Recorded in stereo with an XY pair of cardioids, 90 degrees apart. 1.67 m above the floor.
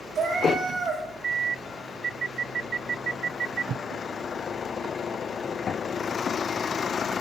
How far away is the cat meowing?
About 4 m.